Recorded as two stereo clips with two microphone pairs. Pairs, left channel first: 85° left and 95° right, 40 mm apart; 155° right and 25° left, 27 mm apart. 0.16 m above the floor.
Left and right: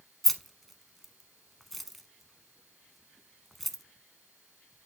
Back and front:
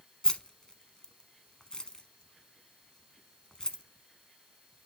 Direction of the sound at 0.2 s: 170° left.